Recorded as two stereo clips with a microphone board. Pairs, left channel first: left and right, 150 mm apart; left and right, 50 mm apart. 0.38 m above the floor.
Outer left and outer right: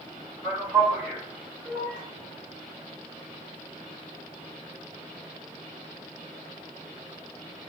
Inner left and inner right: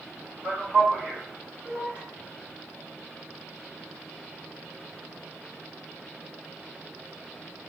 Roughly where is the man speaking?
Centre.